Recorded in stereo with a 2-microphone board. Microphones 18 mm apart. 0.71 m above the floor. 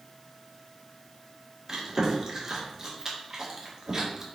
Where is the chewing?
25° right (ahead or behind), 1.8 m.